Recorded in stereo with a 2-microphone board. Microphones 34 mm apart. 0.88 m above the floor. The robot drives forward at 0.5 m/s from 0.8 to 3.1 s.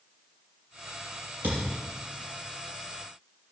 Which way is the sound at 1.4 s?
75° right (ahead or behind).